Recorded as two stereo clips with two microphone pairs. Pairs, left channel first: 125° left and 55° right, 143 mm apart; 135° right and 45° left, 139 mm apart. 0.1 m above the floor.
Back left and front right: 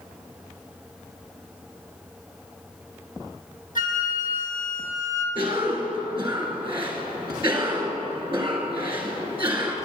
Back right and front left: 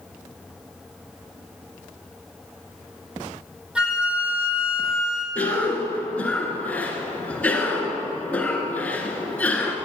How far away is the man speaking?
No man speaking in this recording.